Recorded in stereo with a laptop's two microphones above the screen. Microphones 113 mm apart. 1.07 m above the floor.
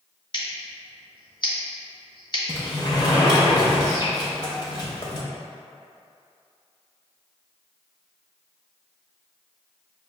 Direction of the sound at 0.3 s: 40° left (ahead or behind).